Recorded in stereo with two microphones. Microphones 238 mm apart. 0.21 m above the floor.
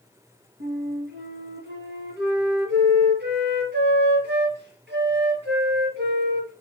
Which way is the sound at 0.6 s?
45° right (ahead or behind).